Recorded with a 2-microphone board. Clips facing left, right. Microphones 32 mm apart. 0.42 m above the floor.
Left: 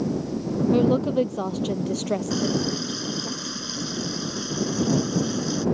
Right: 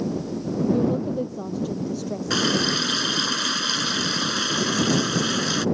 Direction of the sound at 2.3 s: 70° right (ahead or behind).